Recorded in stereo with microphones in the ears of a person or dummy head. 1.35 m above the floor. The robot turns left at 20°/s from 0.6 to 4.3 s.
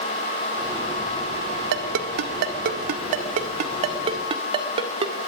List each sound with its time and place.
1.7 s a ringtone: 70° right (ahead or behind), 1.8 m; by 5.2 s 30° right (ahead or behind), 1.8 m